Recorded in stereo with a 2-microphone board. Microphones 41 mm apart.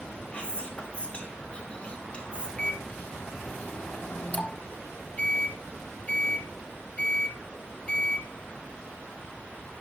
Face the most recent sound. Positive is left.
turn(degrees=35)  # may be behind; listen again after turning